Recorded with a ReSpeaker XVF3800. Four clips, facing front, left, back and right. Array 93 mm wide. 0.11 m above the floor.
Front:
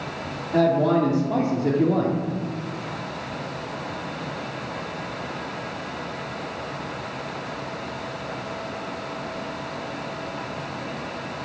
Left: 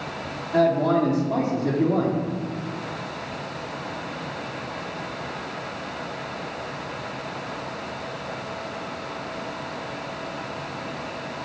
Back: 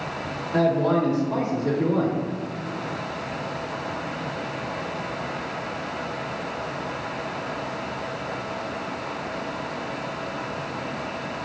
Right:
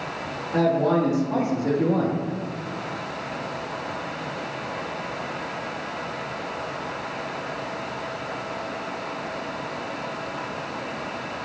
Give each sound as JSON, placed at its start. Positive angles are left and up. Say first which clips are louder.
{"t": 0.5, "sound": "a man speaking", "louder": "left 1 dB, front 2 dB", "azimuth_deg": -15, "distance_m": 2.5}